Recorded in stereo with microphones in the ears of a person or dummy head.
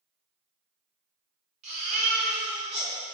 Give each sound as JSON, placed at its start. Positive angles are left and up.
{"t": 1.6, "sound": "a baby crying", "side_deg": -35, "distance_m": 1.2}